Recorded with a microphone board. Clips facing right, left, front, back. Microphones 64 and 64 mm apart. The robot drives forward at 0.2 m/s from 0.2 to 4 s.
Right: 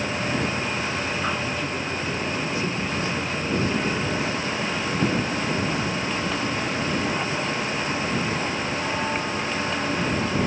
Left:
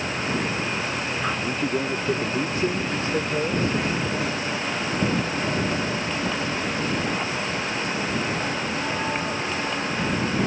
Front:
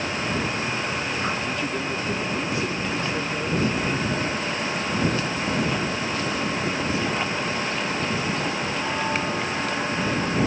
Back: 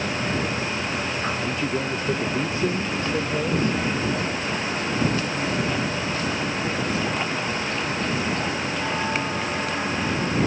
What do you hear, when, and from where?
1.4 s a man speaking: 120° left, 0.8 m; by 3.8 s 145° left, 1.1 m